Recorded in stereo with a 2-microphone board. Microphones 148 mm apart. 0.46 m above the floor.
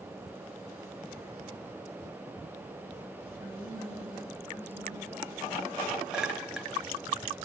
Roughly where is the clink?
Centre.